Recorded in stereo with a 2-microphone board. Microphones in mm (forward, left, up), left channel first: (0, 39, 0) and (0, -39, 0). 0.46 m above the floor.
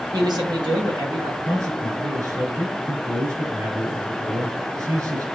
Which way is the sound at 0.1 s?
65° right (ahead or behind).